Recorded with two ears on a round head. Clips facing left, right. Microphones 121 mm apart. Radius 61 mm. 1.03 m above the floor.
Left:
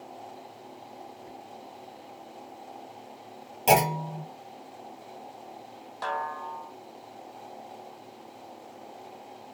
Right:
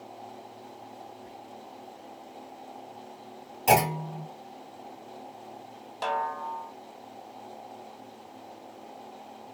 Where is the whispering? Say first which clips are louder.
Left 1 dB; 35° right (ahead or behind), 0.9 m.